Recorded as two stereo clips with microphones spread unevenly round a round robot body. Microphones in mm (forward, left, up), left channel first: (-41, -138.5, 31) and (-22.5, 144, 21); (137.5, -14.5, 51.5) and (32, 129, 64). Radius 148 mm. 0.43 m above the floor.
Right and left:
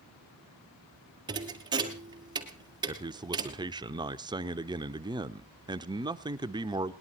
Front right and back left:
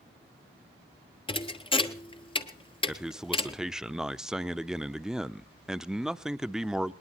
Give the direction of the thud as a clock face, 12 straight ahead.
12 o'clock.